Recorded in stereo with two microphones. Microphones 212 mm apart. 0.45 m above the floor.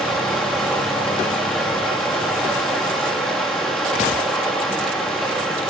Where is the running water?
5° left (ahead or behind), 5.5 m.